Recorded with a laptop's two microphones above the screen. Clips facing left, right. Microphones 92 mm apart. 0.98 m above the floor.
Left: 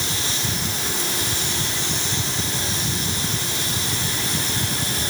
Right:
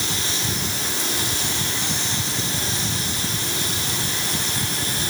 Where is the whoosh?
I don't hear a whoosh.